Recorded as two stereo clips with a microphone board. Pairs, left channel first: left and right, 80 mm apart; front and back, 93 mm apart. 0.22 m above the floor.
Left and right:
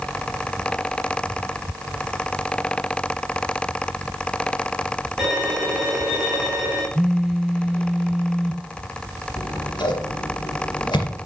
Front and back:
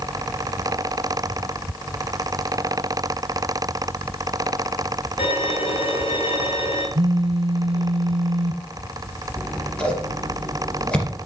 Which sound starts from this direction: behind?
A phone buzzing, at 7.0 s.